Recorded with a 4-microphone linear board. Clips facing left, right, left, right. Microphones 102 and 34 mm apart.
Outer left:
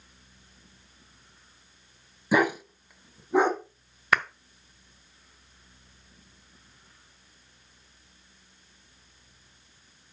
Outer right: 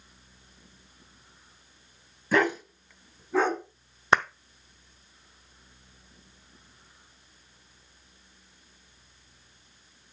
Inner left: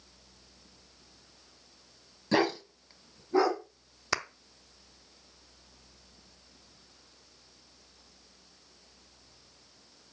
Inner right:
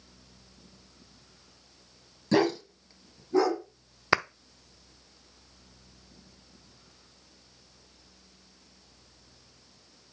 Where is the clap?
30° right (ahead or behind), 0.6 m.